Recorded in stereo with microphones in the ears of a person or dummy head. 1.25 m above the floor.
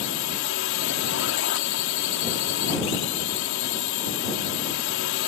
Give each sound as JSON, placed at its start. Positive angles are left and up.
{"t": 0.0, "sound": "a drone", "side_deg": 70}